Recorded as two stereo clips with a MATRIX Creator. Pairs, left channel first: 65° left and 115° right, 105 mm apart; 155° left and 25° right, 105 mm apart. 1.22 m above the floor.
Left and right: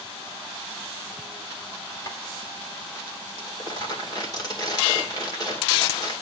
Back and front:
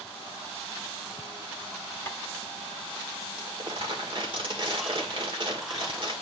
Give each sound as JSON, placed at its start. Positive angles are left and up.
{"t": 2.1, "sound": "tapping", "azimuth_deg": 105, "distance_m": 1.0}
{"t": 3.4, "sound": "crumpling", "azimuth_deg": 15, "distance_m": 1.9}